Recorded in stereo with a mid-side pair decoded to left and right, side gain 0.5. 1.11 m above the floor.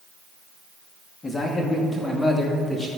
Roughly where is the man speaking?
Ahead.